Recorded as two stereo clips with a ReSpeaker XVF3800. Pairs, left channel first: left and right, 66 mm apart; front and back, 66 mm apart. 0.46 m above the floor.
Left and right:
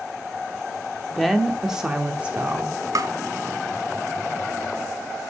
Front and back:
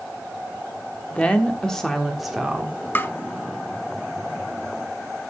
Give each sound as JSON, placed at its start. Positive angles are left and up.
{"t": 1.1, "sound": "a woman speaking", "azimuth_deg": 0, "distance_m": 1.2}
{"t": 3.0, "sound": "tapping", "azimuth_deg": -60, "distance_m": 0.6}